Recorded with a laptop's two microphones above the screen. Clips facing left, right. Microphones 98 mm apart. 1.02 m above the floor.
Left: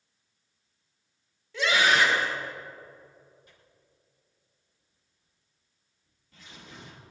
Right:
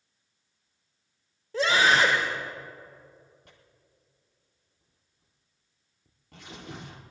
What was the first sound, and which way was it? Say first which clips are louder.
A scream: right 1 dB; 40° right (ahead or behind).